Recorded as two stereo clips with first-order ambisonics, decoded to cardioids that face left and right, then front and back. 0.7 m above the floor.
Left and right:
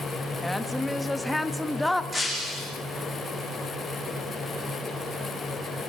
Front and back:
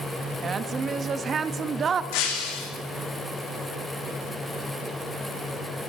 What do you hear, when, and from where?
0.4 s a woman speaking: 175° left, 0.8 m
2.1 s breaking glass: 5° right, 4.5 m